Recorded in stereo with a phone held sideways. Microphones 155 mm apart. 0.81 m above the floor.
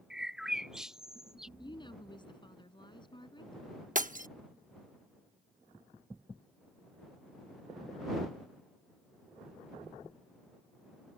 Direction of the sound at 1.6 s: 30° left (ahead or behind).